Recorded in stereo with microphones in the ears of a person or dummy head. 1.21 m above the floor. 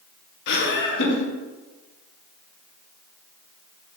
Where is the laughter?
60° left (ahead or behind), 1.5 m.